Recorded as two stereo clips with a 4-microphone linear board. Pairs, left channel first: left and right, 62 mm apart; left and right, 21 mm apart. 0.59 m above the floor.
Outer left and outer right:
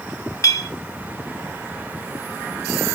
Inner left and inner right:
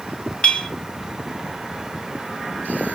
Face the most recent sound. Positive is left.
turn(degrees=70)  # may be behind; listen again after turning